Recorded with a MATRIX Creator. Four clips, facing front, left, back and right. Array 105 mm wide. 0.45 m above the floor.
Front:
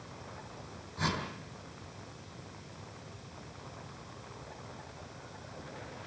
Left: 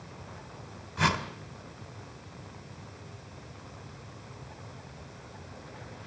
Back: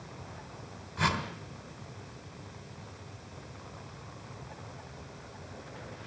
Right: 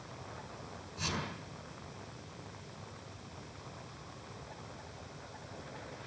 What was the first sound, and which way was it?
A whoosh, 110° left.